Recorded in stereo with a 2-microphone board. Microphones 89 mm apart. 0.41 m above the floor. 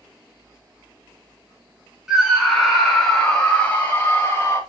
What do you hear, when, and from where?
2.1 s a scream: 5° right (ahead or behind), 4 m; by 4.6 s 25° left (ahead or behind), 3 m